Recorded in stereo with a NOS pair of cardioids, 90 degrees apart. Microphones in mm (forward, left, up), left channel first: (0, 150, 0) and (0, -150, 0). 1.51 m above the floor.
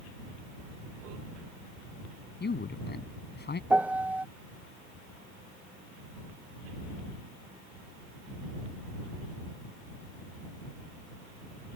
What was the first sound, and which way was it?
A man speaking, 35° left.